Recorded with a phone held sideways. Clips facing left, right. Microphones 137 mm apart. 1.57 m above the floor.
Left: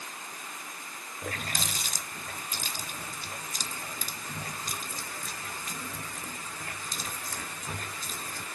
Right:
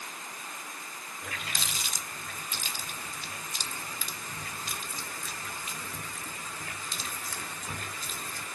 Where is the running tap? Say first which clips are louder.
Left 4 dB; 40° left (ahead or behind), 0.6 m.